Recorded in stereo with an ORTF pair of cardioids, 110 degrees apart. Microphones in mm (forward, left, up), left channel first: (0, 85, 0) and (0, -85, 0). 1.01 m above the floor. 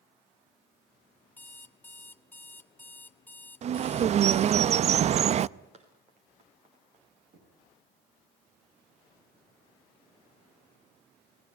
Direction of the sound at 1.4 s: 10° left.